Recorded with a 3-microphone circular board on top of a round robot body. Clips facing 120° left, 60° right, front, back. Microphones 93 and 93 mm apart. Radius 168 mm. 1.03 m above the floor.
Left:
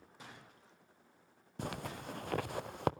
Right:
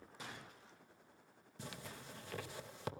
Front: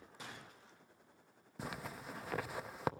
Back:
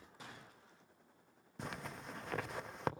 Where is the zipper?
90° left, 0.6 m.